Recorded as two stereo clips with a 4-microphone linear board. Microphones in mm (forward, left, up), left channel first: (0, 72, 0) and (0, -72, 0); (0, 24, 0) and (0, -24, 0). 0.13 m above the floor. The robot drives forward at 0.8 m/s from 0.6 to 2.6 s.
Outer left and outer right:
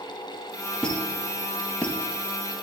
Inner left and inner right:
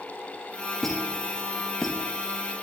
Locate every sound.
0.8 s a squeak: 5° left (ahead or behind), 3 m; by 2.0 s 10° left (ahead or behind), 2 m